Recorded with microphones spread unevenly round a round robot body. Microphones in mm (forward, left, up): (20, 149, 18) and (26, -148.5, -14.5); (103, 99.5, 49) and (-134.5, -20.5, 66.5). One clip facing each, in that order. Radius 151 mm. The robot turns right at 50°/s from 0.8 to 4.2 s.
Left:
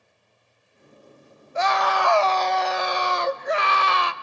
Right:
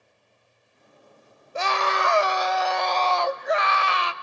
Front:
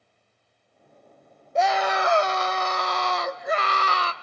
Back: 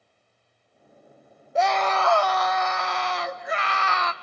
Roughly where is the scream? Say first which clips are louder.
Left 3 dB, even; ahead right.